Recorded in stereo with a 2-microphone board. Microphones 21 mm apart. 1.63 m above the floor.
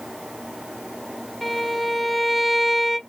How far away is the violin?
About 0.5 m.